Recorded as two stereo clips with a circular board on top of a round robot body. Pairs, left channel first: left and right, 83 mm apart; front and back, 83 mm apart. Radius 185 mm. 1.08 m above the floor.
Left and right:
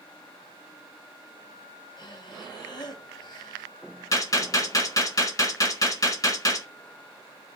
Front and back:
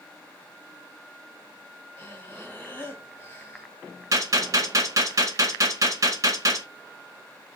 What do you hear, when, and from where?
2.0 s breathing: 65° left, 1.7 m
4.1 s a gunshot: 130° left, 1.9 m